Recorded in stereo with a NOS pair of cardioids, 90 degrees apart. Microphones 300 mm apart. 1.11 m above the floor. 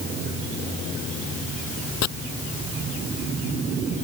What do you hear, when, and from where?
2.0 s chopping: 60° left